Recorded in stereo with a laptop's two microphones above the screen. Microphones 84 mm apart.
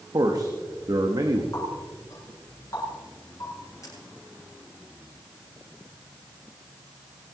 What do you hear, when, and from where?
0.1 s a man speaking: 55° right (ahead or behind), 1.1 m
1.5 s a running tap: 45° left (ahead or behind), 8 m